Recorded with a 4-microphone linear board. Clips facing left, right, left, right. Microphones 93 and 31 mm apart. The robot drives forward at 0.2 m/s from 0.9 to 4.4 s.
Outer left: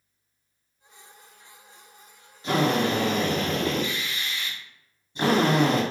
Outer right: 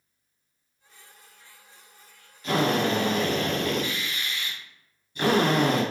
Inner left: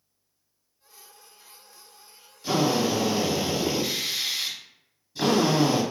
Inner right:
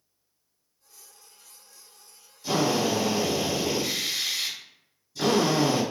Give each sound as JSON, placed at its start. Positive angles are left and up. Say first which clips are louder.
{"t": 2.4, "sound": "a drill", "louder": "outer left 1 dB, inner left 1 dB", "side_deg": 25, "distance_m": 1.1}